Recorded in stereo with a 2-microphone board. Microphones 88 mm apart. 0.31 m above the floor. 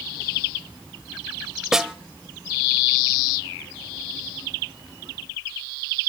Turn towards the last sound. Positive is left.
turn(degrees=-5)  # may be behind; listen again after turning